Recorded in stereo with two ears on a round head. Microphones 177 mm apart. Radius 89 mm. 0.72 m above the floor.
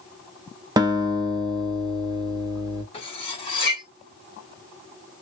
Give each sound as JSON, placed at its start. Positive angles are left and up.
{"t": 0.8, "sound": "a guitar", "side_deg": -20, "distance_m": 0.7}
{"t": 2.9, "sound": "cutlery clinking", "side_deg": 30, "distance_m": 2.5}